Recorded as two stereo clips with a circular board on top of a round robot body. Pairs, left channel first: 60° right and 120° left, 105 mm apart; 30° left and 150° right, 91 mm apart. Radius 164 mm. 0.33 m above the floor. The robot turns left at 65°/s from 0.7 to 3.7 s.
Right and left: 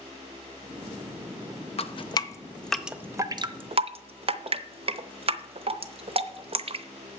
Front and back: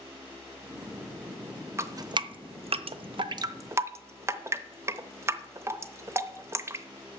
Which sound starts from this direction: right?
Dripping, at 1.8 s.